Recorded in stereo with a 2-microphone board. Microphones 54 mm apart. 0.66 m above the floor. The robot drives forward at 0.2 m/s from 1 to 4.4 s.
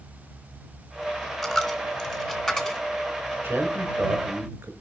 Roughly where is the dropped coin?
Centre.